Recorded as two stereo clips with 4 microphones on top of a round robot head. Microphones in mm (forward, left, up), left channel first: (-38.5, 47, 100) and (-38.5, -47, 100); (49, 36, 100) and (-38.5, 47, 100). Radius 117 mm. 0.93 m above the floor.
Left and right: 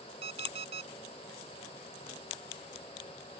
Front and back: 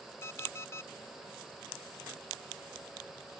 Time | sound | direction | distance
0.2 | an alarm clock | 75° right | ?